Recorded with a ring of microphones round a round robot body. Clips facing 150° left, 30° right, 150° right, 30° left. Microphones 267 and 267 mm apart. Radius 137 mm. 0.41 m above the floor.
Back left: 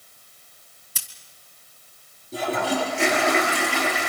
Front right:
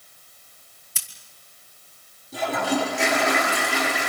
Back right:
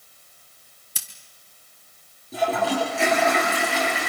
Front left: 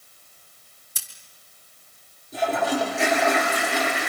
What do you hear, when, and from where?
0.9 s scissors: 165° right, 3 m
2.3 s a toilet flushing: 155° right, 7 m